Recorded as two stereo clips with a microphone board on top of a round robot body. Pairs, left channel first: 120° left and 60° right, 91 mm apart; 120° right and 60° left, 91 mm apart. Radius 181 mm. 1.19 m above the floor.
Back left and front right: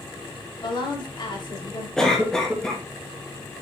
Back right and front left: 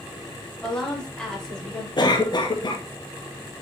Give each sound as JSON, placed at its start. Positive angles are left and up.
{"t": 0.6, "sound": "a woman speaking", "azimuth_deg": 155, "distance_m": 4.5}
{"t": 2.0, "sound": "a cough", "azimuth_deg": -155, "distance_m": 1.9}